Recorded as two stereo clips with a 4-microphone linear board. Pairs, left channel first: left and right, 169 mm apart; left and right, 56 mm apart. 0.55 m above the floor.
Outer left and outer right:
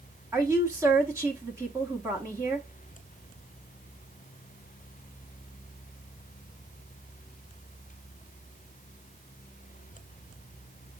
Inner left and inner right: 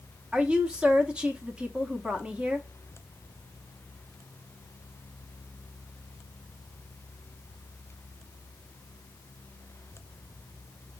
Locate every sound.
0.3 s a woman speaking: 20° right (ahead or behind), 0.8 m